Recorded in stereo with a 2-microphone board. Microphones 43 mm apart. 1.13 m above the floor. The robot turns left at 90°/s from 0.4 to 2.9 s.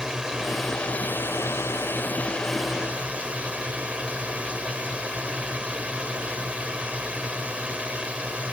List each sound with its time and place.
0.0 s a drone: 165° right; by 8.5 s 30° right